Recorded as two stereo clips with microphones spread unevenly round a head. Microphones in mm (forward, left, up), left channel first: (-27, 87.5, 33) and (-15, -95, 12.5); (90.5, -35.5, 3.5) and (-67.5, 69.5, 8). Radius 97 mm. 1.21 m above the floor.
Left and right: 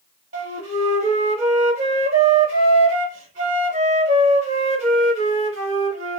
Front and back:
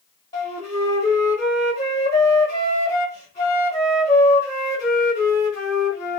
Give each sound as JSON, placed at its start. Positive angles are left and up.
{"t": 0.3, "sound": "a flute", "azimuth_deg": -90, "distance_m": 1.0}